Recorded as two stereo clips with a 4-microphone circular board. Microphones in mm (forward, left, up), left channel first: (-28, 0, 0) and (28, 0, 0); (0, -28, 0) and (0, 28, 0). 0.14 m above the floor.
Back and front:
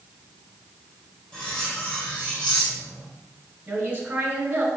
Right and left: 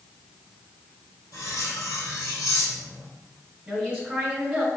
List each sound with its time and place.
1.3 s cutlery clinking: 110° right, 2 m
3.7 s a woman speaking: 25° left, 1.6 m